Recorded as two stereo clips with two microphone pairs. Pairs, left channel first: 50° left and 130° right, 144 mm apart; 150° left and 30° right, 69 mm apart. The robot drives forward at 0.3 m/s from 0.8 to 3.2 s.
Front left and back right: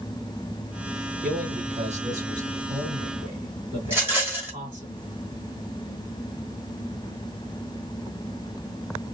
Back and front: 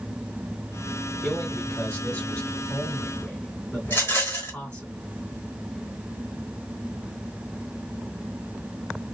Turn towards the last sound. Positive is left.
turn(degrees=170)